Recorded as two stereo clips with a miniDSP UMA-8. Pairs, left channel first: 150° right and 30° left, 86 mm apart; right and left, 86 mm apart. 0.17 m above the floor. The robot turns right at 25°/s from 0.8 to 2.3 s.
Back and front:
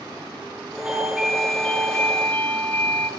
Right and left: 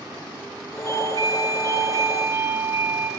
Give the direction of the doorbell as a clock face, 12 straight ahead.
8 o'clock.